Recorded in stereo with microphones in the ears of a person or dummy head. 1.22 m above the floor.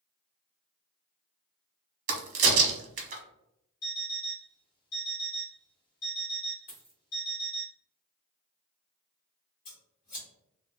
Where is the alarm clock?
50° left (ahead or behind), 1.2 m.